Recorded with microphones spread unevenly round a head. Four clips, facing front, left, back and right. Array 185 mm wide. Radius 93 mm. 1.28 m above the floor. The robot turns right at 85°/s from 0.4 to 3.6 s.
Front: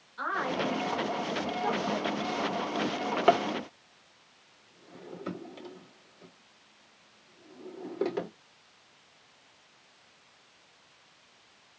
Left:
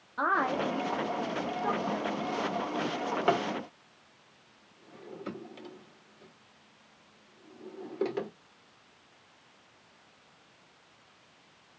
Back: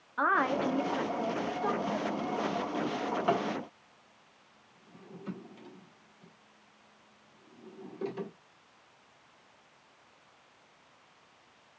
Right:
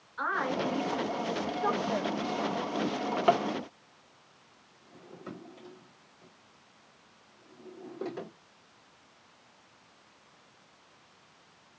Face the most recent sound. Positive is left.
turn(degrees=30)